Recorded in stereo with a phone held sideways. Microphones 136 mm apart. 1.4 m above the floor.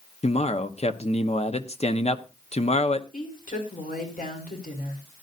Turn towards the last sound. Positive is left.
turn(degrees=90)